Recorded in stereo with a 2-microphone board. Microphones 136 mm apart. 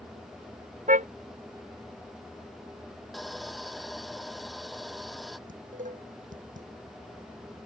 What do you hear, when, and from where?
0.9 s a car horn: 70° right (ahead or behind)
3.1 s sawing: centre (ahead or behind)
5.5 s dishes clattering: 70° right (ahead or behind)